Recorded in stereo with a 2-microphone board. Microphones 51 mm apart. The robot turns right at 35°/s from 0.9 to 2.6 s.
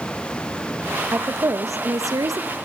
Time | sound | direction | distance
1.1 | a woman speaking | 130° right | 0.8 m